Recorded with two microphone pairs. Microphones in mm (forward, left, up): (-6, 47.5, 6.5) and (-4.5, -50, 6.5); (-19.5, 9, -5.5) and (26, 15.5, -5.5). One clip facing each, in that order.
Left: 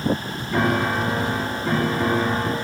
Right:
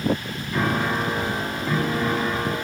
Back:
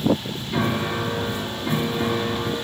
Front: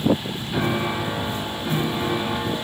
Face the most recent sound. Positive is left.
turn(degrees=80)